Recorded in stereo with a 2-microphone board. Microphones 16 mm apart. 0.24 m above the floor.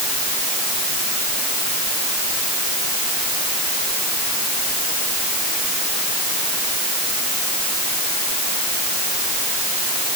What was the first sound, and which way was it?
Only background noise.